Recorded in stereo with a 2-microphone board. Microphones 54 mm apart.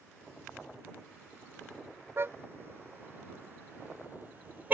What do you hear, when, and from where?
2.2 s a car horn: 45° right (ahead or behind); by 4.7 s 35° right (ahead or behind)